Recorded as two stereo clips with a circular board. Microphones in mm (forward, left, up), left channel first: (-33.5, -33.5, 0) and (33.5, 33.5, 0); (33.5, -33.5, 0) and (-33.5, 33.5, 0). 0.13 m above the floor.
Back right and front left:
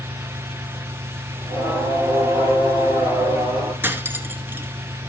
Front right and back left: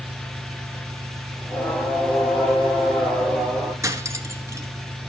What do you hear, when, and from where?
0.0 s an engine running: 80° left, 9.5 m
1.4 s singing: 35° left, 5.5 m
3.8 s cutlery clinking: 100° left, 0.9 m